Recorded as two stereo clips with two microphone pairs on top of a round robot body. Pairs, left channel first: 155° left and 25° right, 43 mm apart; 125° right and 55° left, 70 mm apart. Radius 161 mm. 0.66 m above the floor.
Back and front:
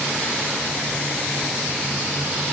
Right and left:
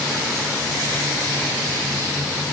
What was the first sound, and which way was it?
Only background noise.